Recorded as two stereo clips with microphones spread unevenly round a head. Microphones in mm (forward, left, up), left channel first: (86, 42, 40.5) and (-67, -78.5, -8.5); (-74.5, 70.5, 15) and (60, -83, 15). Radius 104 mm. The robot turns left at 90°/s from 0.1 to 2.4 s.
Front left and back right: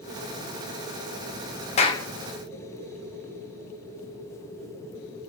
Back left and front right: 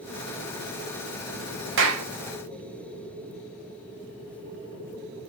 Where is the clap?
15° right, 0.7 m; by 2.1 s 40° right, 0.7 m.